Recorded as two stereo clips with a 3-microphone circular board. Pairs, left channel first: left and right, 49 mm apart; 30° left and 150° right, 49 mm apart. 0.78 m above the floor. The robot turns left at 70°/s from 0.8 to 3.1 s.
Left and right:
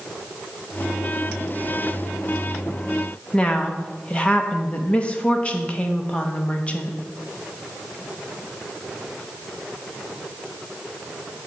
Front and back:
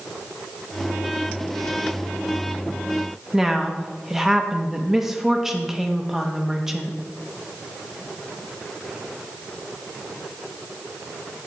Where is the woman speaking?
135° left, 0.9 m.